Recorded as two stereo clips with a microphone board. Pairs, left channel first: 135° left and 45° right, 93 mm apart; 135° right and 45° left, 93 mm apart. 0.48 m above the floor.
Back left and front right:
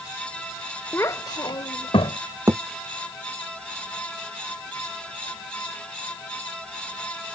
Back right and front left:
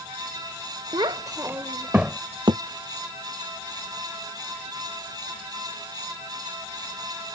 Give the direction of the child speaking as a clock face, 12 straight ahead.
10 o'clock.